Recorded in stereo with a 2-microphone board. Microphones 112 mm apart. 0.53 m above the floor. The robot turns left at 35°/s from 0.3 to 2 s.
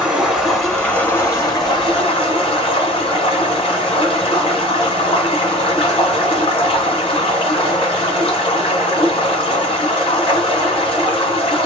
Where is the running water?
175° right, 1.9 m; by 11.7 s 125° left, 1.9 m.